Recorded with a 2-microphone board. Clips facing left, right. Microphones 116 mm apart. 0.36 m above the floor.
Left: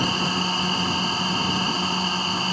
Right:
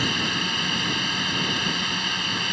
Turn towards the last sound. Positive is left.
turn(degrees=35)  # may be behind; listen again after turning